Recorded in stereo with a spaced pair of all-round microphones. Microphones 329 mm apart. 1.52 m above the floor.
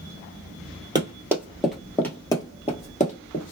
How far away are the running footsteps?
About 1.6 m.